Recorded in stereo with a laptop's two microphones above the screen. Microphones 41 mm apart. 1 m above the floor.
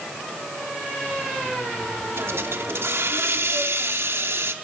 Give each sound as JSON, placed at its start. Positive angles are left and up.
{"t": 2.2, "sound": "a hiss", "side_deg": -70, "distance_m": 1.1}